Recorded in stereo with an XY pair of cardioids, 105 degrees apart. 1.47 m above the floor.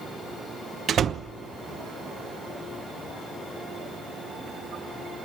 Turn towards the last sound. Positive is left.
turn(degrees=-55)